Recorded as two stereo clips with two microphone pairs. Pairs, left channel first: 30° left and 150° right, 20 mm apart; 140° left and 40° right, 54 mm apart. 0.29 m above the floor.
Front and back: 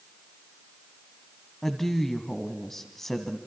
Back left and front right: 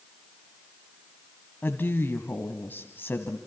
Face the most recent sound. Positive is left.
turn(degrees=100)